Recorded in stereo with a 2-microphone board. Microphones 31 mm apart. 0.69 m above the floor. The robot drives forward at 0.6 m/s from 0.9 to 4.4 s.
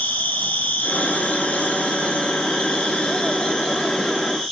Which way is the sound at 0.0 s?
65° left (ahead or behind).